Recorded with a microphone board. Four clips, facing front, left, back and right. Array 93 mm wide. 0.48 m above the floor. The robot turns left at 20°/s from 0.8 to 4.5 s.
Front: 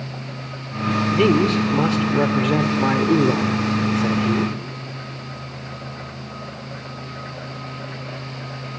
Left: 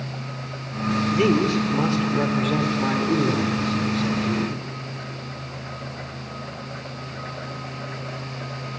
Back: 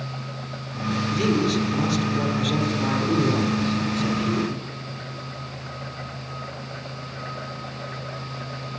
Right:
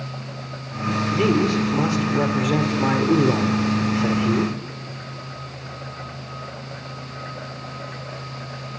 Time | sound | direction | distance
1.1 | a man speaking | 10° left | 1.7 m